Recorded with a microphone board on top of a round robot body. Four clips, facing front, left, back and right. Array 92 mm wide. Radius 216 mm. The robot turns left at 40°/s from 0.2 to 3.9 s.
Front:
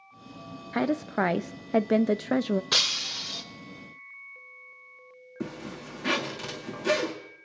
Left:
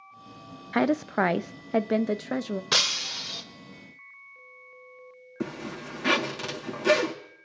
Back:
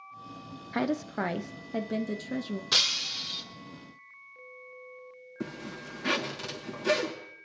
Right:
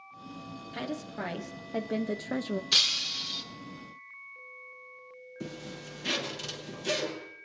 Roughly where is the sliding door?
No sliding door in this recording.